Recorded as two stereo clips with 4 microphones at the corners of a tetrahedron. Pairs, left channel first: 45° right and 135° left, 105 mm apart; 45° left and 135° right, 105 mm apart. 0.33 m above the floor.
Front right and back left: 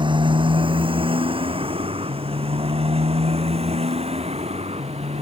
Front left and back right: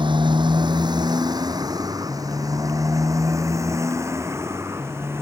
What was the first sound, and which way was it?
A motorcycle, straight behind.